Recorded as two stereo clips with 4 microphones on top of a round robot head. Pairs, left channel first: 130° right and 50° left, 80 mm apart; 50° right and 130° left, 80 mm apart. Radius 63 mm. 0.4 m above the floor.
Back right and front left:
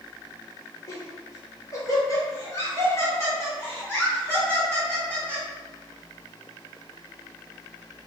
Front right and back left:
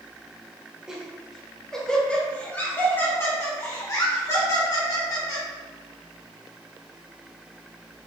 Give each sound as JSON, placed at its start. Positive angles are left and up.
{"t": 0.9, "sound": "laughter", "azimuth_deg": -155, "distance_m": 1.8}